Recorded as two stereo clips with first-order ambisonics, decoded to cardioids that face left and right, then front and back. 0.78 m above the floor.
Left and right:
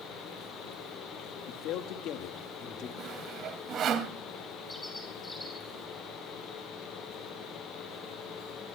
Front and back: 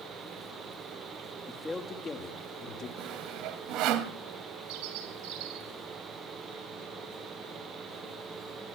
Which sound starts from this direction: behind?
A bird, at 4.7 s.